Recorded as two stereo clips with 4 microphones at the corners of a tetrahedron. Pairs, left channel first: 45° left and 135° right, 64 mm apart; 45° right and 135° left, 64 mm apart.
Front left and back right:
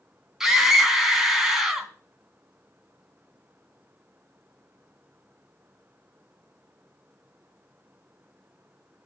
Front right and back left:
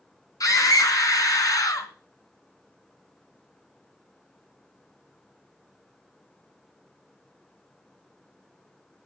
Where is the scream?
55° right, 3 m.